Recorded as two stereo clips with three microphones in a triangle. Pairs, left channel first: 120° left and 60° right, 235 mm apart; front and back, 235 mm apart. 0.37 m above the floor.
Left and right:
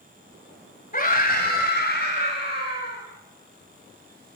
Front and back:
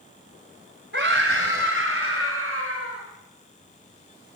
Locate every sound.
0.9 s a scream: 165° left, 1.9 m; by 3.0 s 160° left, 4.5 m